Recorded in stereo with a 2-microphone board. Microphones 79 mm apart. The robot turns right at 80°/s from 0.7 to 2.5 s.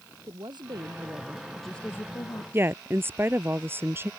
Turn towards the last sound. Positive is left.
turn(degrees=-30)  # may be behind; listen again after turning